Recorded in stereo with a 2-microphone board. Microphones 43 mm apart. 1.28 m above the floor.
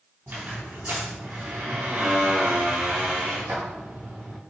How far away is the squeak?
About 4 m.